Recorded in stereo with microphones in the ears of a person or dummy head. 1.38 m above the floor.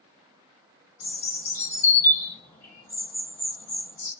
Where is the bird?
15° left (ahead or behind), 1.2 m.